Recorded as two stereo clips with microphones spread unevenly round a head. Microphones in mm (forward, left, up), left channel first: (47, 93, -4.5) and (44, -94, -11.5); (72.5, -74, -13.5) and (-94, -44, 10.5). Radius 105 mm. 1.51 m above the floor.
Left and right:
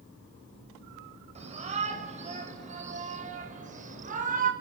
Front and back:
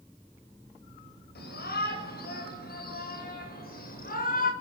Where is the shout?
35° right, 8.5 m; by 4.5 s 45° right, 7 m.